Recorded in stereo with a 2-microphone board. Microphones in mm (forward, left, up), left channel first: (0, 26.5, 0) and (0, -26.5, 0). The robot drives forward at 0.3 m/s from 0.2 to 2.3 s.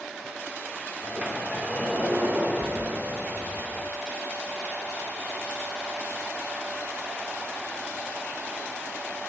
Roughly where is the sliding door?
Right.